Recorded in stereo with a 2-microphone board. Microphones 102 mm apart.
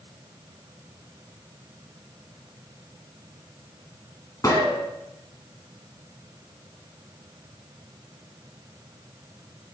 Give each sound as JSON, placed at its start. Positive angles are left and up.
{"t": 4.4, "sound": "a gunshot", "side_deg": 35, "distance_m": 1.7}